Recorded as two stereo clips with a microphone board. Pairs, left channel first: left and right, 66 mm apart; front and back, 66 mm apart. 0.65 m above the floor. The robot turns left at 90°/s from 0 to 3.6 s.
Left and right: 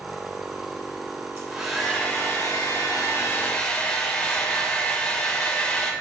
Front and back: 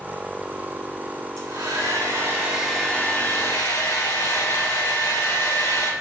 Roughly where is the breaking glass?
I don't hear breaking glass.